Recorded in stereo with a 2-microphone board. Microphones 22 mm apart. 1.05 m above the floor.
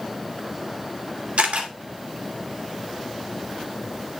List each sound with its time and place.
1.4 s a camera shutter: 85° right, 2 m